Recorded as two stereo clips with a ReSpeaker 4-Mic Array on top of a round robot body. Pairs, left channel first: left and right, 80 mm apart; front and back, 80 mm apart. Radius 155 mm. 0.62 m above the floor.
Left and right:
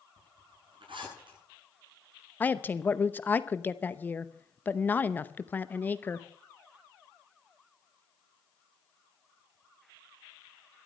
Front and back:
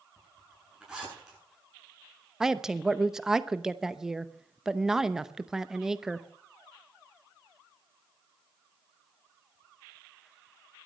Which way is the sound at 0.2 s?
100° right.